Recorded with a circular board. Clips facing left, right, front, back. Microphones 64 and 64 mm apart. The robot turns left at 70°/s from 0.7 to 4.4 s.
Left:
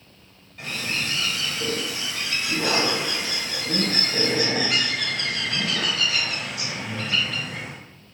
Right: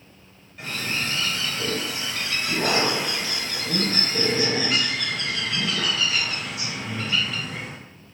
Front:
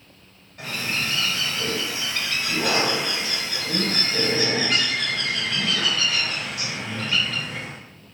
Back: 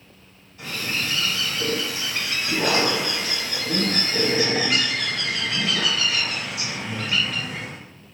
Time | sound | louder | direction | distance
0.6 | a bird | even, front 1 dB | 5° right | 1.6 m